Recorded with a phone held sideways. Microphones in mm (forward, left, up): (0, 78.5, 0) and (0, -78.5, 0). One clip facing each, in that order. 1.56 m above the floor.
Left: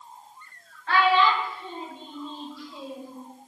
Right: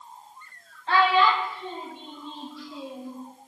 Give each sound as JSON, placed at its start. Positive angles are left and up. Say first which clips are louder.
{"t": 0.9, "sound": "a child speaking", "louder": "even", "side_deg": -25, "distance_m": 1.0}